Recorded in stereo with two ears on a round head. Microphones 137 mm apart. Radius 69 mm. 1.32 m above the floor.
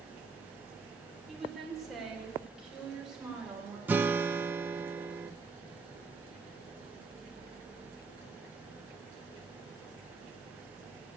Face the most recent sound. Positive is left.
turn(degrees=-15)  # may be behind; listen again after turning